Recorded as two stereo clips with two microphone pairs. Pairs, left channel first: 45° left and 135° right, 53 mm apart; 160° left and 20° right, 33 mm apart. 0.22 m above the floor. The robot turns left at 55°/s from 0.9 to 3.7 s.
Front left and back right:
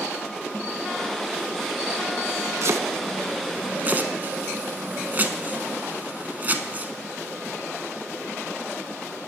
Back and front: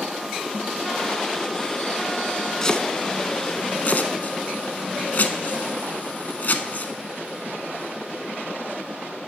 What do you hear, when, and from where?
2.6 s chopping: 130° right, 0.5 m; by 6.9 s 170° left, 0.5 m